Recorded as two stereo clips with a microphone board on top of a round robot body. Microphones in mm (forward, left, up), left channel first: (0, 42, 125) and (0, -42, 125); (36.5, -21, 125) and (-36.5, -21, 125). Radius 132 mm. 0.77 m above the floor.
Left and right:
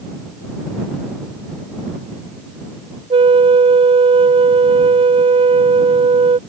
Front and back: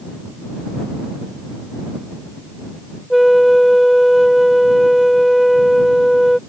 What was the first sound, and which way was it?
A flute, 90° right.